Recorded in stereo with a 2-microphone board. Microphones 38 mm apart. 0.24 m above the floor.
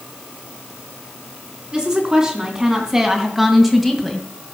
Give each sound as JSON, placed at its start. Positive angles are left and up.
{"t": 1.7, "sound": "a woman speaking", "side_deg": -25, "distance_m": 3.5}